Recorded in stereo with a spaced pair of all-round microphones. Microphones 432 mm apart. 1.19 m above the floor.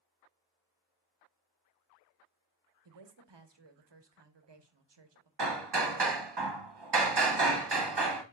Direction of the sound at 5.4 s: 70° right (ahead or behind).